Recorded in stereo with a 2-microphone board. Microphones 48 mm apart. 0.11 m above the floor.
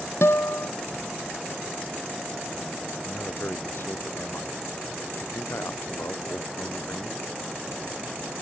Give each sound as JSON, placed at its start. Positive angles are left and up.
{"t": 0.2, "sound": "a guitar", "side_deg": 60}
{"t": 3.0, "sound": "a man speaking", "side_deg": 55}